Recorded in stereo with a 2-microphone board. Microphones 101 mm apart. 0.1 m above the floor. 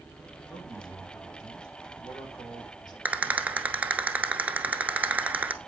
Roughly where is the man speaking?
Left.